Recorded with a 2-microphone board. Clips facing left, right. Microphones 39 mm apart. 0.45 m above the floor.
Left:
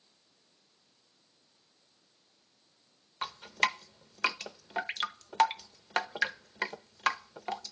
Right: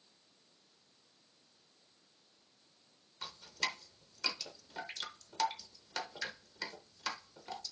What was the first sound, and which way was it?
Dripping, 45° left (ahead or behind).